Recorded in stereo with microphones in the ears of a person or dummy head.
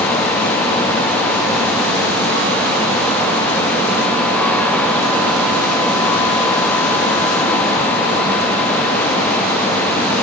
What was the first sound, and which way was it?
Only background noise.